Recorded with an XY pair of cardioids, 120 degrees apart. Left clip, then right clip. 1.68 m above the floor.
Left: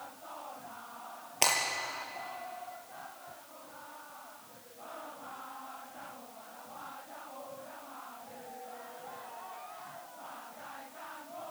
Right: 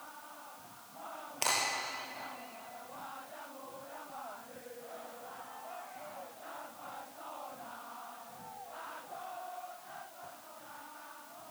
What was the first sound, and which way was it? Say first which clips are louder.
Breaking glass: left 4 dB; 45° left.